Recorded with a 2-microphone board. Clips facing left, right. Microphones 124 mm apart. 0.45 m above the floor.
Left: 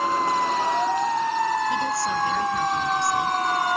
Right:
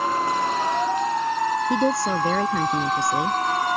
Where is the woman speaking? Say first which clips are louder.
Right 3 dB; 60° right (ahead or behind).